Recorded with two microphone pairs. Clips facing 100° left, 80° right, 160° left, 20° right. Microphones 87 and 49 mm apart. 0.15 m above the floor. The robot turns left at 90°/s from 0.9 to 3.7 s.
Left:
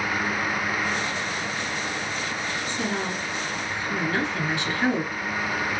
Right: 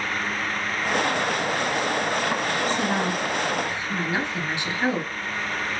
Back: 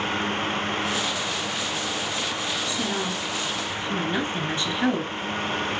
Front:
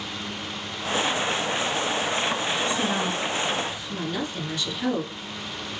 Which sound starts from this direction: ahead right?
A woman speaking, at 2.6 s.